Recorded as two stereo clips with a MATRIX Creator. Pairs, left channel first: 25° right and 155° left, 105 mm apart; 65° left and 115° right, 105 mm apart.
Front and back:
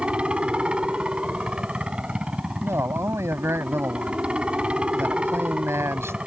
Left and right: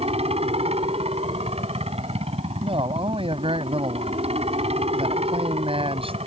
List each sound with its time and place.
0.0 s a helicopter: 125° right
2.6 s a man speaking: 140° right